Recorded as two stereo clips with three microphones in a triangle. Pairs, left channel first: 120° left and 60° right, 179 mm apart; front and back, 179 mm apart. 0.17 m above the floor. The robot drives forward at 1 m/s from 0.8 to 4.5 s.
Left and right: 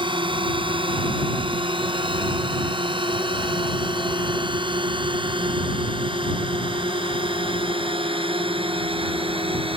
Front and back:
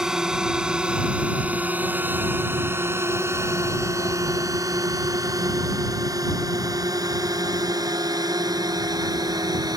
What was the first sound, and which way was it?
A drone, 95° right.